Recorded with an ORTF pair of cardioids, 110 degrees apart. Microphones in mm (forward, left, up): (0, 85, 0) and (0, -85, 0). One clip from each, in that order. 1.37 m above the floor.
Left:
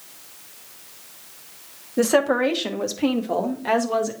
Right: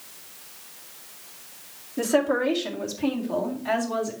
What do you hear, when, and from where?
2.0 s a woman speaking: 40° left, 1.4 m; by 4.1 s 60° left, 2.5 m